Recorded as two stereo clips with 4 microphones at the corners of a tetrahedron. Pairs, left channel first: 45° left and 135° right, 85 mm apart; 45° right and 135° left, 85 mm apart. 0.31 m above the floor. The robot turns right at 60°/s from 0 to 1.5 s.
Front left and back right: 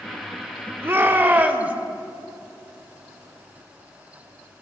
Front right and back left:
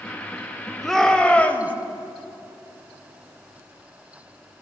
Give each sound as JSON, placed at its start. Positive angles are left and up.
{"t": 0.8, "sound": "a shout", "azimuth_deg": -130, "distance_m": 0.9}